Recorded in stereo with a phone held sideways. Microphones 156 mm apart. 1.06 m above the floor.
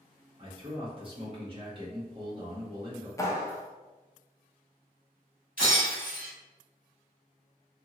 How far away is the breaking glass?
About 1.6 m.